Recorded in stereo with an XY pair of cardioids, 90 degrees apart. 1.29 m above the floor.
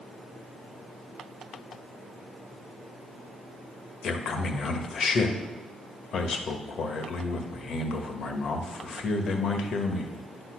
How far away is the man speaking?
About 1.4 m.